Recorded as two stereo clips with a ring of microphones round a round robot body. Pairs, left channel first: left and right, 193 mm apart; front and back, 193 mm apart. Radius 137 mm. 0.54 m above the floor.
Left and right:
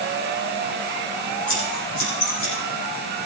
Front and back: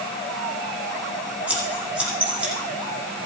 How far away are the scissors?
About 9 m.